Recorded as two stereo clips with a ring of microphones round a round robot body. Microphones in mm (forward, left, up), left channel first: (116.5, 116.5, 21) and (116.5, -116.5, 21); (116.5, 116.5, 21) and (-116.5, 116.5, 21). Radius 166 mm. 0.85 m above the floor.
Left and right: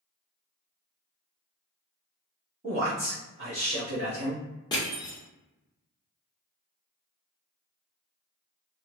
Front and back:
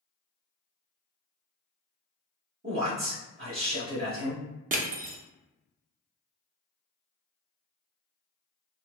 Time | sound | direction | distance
2.6 | a man speaking | 145° right | 1.1 m
4.7 | crushing | 155° left | 0.5 m